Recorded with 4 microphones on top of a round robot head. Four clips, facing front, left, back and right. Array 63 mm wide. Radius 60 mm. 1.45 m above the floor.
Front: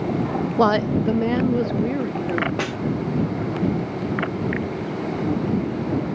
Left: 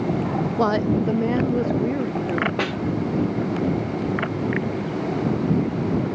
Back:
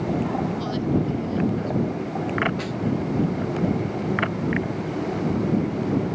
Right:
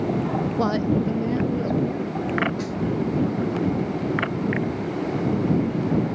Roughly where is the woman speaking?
Ahead.